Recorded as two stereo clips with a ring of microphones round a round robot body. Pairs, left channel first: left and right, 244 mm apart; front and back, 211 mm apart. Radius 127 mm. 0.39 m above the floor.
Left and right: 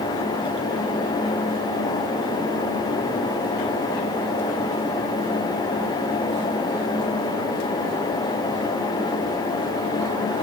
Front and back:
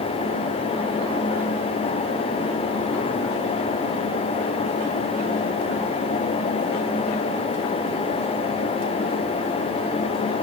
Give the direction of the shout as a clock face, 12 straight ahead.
I don't hear a shout.